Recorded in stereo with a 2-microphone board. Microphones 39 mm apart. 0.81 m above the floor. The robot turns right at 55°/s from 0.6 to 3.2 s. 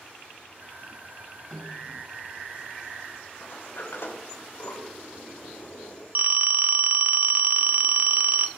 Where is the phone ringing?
45° right (ahead or behind), 0.7 m.